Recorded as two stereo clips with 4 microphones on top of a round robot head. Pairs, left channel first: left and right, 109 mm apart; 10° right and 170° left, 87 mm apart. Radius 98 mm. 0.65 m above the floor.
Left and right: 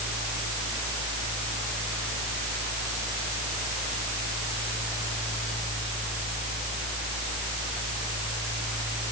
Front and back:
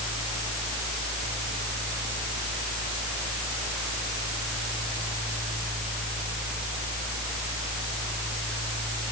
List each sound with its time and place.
Only background noise.